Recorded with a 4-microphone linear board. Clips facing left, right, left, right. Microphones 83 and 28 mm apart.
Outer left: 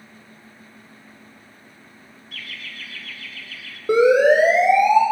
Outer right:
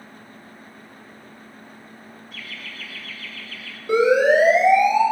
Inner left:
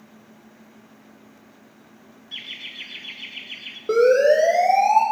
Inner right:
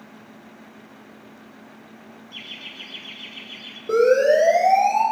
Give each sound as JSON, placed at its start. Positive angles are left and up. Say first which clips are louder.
{"t": 2.3, "sound": "laughter", "louder": "outer left 2 dB, inner left 2 dB", "side_deg": 70, "distance_m": 3.0}
{"t": 3.9, "sound": "a siren", "louder": "outer left 2 dB, inner left 1 dB", "side_deg": 40, "distance_m": 8.0}